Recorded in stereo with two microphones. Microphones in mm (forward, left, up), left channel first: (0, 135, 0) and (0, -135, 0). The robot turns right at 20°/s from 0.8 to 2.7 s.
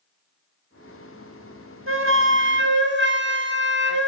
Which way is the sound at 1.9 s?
45° right (ahead or behind).